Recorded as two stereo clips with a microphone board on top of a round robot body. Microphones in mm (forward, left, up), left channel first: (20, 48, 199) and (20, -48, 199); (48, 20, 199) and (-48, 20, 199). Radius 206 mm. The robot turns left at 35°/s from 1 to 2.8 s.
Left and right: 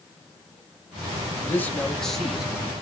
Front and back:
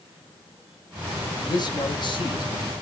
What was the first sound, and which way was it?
A man speaking, 25° left.